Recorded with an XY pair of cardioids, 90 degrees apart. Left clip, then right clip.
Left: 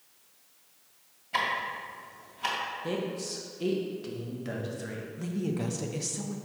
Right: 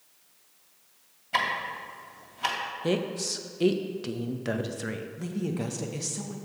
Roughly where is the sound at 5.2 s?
Ahead.